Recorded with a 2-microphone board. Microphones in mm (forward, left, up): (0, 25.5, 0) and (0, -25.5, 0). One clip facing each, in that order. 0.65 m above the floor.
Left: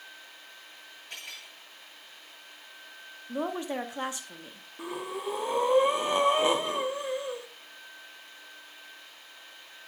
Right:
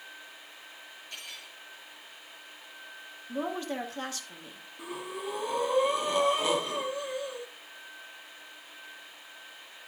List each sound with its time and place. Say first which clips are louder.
1.1 s cutlery clinking: left 2 dB; 70° left (ahead or behind), 6.5 m
3.3 s a woman speaking: left 1 dB; 20° left (ahead or behind), 0.9 m
4.8 s breathing: left 3 dB; 25° left (ahead or behind), 1.1 m